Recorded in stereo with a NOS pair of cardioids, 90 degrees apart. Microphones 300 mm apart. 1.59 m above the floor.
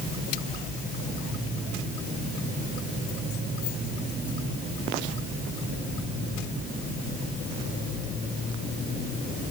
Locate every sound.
Only background noise.